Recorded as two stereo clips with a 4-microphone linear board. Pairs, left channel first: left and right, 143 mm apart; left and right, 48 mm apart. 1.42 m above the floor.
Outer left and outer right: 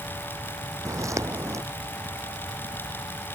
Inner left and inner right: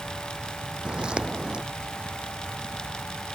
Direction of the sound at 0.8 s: 20° right (ahead or behind).